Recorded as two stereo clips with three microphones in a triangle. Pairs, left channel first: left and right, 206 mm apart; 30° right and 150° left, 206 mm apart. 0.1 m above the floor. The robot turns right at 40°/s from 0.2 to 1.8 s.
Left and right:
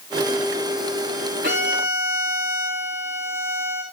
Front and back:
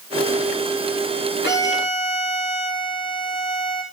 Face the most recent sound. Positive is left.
turn(degrees=-45)